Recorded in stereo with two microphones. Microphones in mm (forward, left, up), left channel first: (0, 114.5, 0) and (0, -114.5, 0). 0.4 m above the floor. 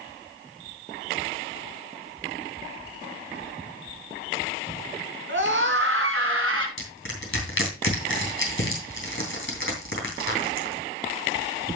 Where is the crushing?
55° left (ahead or behind), 3 m.